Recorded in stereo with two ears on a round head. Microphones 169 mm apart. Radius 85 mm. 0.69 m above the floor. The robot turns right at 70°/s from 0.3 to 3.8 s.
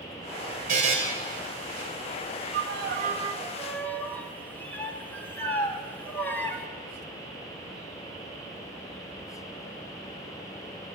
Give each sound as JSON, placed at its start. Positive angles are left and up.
{"t": 0.7, "sound": "a buzzer", "side_deg": -50, "distance_m": 2.5}
{"t": 2.5, "sound": "a violin", "azimuth_deg": -80, "distance_m": 1.5}